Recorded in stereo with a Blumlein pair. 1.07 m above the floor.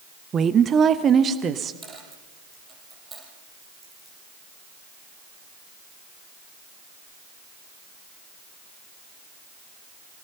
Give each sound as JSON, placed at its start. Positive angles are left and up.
{"t": 0.3, "sound": "a woman speaking", "azimuth_deg": -20, "distance_m": 0.7}
{"t": 1.8, "sound": "a dropped coin", "azimuth_deg": -10, "distance_m": 5.5}